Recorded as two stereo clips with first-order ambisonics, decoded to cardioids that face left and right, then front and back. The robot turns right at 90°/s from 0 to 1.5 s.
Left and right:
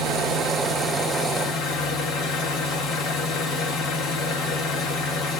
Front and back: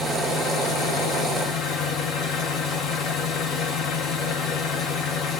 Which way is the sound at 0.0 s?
85° right.